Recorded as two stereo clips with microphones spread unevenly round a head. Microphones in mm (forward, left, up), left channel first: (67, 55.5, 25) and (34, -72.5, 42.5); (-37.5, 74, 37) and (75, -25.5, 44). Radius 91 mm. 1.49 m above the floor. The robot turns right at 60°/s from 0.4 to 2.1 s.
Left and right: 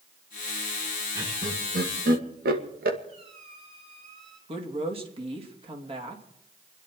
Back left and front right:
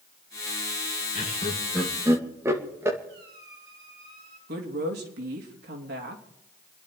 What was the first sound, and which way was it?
Laughter, 175° right.